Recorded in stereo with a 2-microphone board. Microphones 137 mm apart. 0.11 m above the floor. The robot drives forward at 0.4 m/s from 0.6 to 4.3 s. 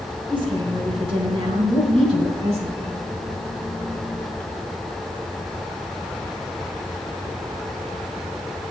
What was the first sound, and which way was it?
A woman speaking, 40° right (ahead or behind).